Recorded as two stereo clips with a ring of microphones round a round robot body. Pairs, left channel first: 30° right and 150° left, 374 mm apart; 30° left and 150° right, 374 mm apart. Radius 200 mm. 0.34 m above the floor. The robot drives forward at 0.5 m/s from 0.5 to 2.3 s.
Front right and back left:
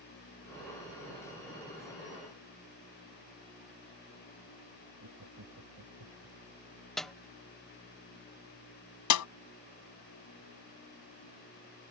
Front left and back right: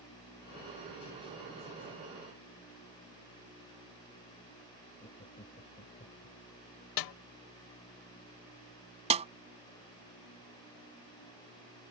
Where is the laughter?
100° left.